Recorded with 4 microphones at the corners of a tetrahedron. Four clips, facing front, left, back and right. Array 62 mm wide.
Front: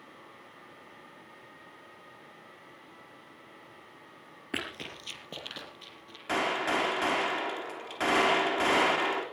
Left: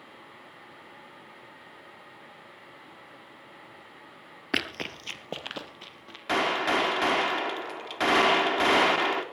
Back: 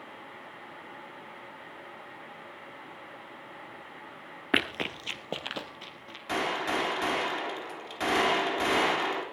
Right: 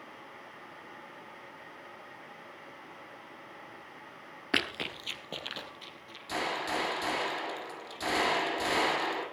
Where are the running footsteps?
175° left, 1.3 m; by 6.2 s 130° left, 3 m.